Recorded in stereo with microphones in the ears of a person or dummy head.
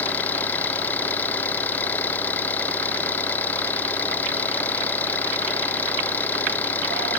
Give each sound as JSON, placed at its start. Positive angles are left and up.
{"t": 0.0, "sound": "an engine running", "side_deg": 10}